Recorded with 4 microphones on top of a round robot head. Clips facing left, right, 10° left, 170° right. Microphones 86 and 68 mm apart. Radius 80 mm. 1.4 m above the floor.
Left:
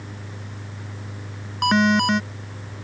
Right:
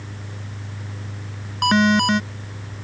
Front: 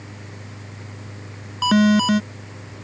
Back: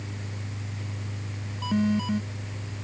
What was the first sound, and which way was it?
An alarm, straight ahead.